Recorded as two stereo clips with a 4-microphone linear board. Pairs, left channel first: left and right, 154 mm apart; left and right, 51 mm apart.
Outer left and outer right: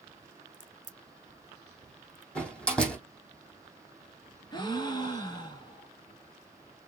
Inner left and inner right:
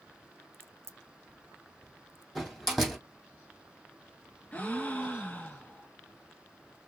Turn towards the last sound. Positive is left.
turn(degrees=25)  # may be behind; listen again after turning